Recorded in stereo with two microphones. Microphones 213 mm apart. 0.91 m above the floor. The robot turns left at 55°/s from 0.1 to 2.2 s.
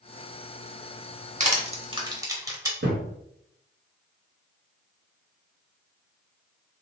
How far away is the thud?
About 1.7 m.